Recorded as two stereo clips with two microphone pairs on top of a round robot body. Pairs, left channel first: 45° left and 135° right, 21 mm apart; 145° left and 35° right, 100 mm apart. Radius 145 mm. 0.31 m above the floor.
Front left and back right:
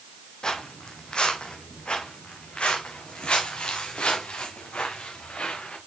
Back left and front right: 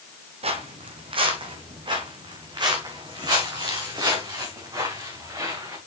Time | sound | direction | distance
0.4 | footsteps | 10° right | 1.4 m